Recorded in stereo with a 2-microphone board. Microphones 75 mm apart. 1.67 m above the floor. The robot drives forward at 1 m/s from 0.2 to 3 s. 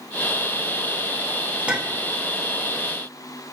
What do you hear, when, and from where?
1.7 s a clink: 15° right (ahead or behind), 2 m; by 2.1 s 20° right (ahead or behind), 1.7 m